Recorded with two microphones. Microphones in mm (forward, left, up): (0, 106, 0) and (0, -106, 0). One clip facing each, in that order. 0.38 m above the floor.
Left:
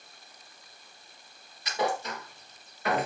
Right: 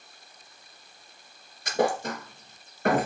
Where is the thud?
50° right (ahead or behind), 2 m.